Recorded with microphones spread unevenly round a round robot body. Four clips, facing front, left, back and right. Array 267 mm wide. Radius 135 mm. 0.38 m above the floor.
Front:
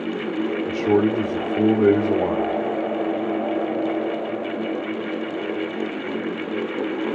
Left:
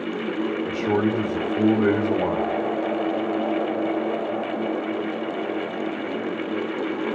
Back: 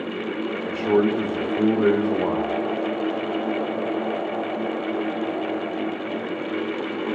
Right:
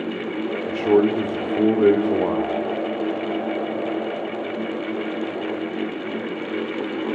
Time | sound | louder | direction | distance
0.7 | a man speaking | right 7 dB, even | 65° right | 1.3 m